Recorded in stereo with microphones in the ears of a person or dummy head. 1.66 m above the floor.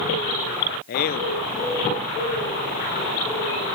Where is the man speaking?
55° left (ahead or behind), 0.6 m.